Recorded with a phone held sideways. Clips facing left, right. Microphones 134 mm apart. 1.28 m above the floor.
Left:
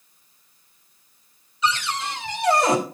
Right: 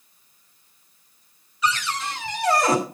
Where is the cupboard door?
25° left (ahead or behind), 3 m.